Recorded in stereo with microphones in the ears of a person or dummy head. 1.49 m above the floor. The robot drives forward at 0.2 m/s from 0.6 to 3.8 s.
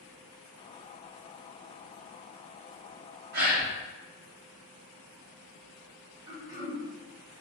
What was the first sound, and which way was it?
A gasp, 50° right (ahead or behind).